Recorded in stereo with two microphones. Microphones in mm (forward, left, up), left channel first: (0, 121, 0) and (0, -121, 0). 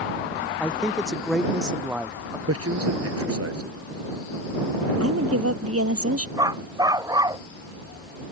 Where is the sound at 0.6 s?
5° left (ahead or behind); by 2.4 s 10° right (ahead or behind).